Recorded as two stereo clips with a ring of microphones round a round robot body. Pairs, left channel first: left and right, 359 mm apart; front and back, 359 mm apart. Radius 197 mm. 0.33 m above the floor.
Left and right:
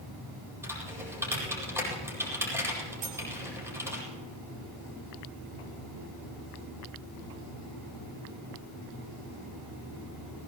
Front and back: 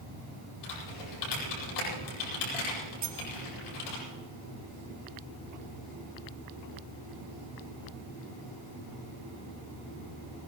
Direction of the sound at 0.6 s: 5° right.